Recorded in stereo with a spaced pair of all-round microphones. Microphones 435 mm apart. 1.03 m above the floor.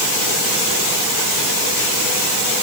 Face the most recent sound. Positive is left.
No sound to turn to.